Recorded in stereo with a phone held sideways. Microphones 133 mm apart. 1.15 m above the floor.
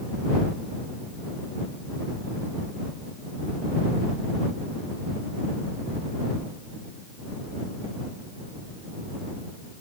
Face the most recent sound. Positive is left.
No sound to turn to.